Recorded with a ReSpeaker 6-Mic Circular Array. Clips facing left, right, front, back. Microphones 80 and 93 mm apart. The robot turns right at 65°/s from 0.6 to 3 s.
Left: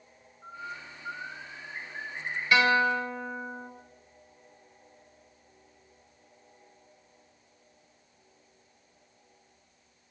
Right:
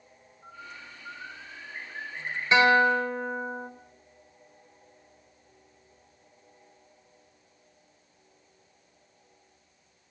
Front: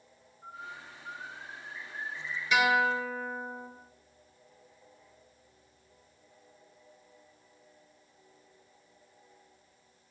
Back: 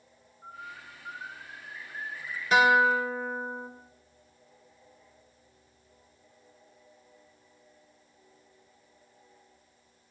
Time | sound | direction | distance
0.4 | a bird | 120° left | 2.5 m
2.5 | a guitar | 145° right | 1.0 m